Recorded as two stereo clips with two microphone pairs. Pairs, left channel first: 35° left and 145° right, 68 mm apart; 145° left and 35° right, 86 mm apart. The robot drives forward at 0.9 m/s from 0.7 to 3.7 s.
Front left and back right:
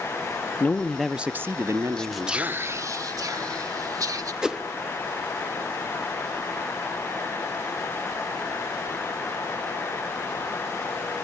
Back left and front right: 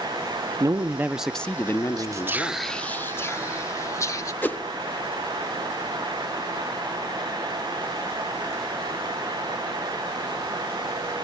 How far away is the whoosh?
About 0.9 m.